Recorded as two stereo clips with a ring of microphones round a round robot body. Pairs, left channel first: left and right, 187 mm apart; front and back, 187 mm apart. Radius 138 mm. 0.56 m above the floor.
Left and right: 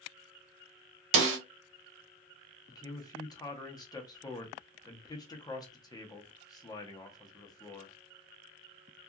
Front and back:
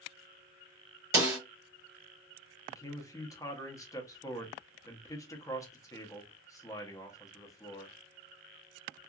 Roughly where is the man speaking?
Ahead left.